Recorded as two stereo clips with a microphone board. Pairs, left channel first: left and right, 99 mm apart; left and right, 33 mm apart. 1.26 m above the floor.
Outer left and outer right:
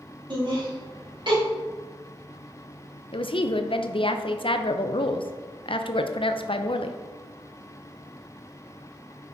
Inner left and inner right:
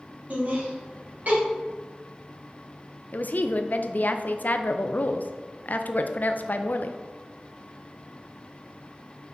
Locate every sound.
0.3 s laughter: 55° right (ahead or behind), 2.5 m
3.1 s a woman speaking: 60° left (ahead or behind), 0.5 m